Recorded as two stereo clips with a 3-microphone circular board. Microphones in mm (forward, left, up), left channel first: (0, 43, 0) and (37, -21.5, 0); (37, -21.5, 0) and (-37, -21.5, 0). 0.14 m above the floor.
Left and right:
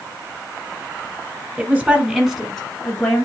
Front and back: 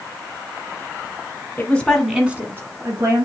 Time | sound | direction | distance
1.6 | a woman speaking | 25° right | 1.2 m